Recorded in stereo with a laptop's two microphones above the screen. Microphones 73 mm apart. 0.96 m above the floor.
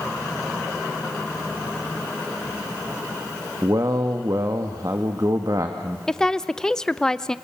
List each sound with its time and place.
3.6 s a man speaking: 55° right (ahead or behind), 1.7 m
6.1 s a woman speaking: 10° left (ahead or behind), 0.7 m